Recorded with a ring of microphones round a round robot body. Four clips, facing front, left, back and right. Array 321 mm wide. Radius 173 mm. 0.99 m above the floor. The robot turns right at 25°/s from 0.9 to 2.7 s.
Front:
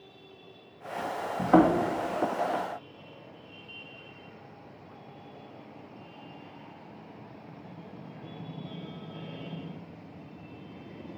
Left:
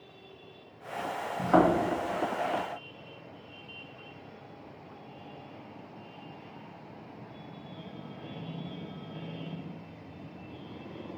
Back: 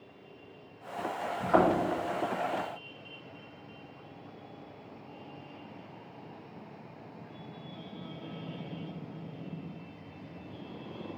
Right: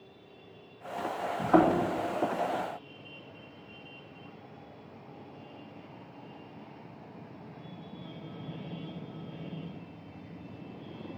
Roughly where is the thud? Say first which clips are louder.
Even, front 4 dB; ahead.